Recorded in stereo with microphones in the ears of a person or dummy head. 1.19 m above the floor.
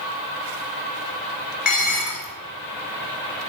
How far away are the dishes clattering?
About 2.5 m.